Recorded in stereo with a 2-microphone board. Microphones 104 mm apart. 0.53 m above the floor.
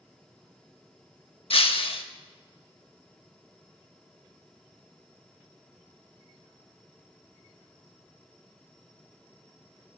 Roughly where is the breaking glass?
Left.